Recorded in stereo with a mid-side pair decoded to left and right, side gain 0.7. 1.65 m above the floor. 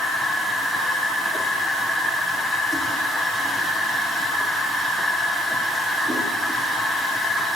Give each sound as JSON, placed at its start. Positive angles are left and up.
{"t": 0.0, "sound": "a machine running", "azimuth_deg": -10, "distance_m": 3.5}